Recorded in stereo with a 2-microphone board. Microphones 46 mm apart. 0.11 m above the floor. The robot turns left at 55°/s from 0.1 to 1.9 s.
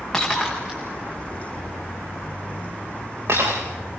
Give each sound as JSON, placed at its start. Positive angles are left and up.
{"t": 0.1, "sound": "breaking glass", "side_deg": 10, "distance_m": 6.5}